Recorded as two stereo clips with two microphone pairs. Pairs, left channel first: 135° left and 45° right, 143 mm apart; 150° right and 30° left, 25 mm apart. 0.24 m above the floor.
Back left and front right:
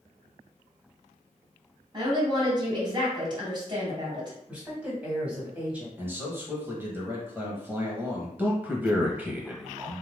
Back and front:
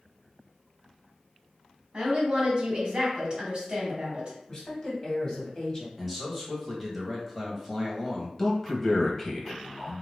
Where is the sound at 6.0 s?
75° right, 1.4 m.